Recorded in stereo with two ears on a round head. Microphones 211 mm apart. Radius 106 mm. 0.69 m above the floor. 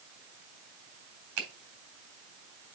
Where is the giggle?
I don't hear a giggle.